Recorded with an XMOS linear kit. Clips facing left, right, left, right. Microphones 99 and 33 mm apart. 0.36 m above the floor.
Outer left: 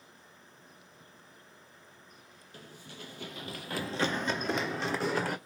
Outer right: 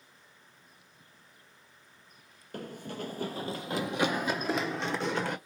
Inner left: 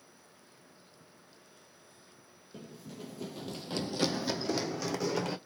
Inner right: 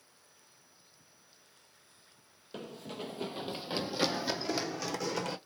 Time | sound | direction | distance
2.5 | running footsteps | 60° right (ahead or behind) | 0.6 m